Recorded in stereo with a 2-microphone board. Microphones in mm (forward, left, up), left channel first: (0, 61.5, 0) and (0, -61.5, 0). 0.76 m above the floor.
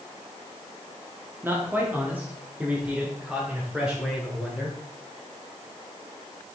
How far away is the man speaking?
About 1.7 m.